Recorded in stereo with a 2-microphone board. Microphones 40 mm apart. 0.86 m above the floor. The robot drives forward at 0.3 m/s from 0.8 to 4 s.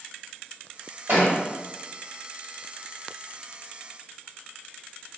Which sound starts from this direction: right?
A thud, at 1.1 s.